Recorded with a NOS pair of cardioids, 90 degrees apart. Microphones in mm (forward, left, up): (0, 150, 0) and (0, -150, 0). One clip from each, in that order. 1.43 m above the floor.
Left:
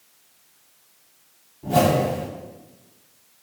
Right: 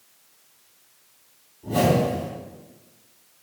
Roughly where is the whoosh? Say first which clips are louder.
Left 2 dB; ahead left.